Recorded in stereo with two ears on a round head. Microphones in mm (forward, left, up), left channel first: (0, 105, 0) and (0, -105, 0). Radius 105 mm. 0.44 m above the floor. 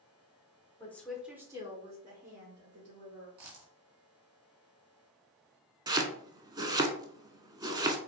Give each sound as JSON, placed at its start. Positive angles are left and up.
{"t": 0.8, "sound": "a woman speaking", "side_deg": 10, "distance_m": 1.3}
{"t": 3.4, "sound": "a dropped coin", "side_deg": -85, "distance_m": 1.5}
{"t": 5.9, "sound": "chopping", "side_deg": -15, "distance_m": 0.6}